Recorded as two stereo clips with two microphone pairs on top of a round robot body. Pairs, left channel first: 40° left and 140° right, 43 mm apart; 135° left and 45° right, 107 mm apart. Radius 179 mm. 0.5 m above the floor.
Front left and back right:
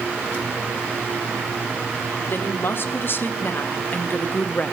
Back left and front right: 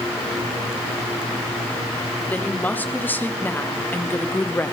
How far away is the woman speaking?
About 2.5 m.